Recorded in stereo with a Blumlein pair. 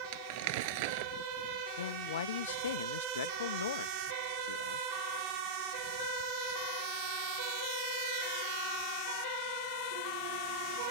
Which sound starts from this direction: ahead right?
Crumpling, at 0.1 s.